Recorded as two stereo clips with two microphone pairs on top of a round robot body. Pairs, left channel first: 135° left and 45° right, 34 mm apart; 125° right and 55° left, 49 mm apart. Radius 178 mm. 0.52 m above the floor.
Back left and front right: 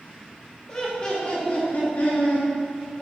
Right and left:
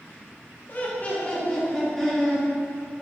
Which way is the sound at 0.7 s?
165° right.